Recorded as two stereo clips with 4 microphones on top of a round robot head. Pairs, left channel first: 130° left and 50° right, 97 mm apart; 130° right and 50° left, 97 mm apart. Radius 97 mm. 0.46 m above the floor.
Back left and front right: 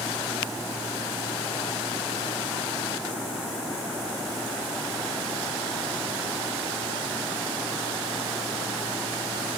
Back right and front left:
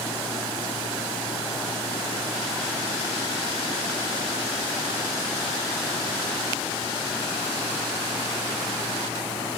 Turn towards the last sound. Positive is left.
No sound to turn to.